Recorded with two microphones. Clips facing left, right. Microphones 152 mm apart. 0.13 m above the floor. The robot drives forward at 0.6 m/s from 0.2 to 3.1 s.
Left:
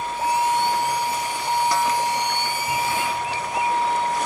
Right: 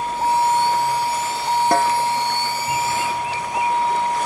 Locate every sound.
0.0 s a vehicle: 30° right (ahead or behind); by 4.3 s 20° right (ahead or behind)
1.7 s a snare drum: 55° right (ahead or behind)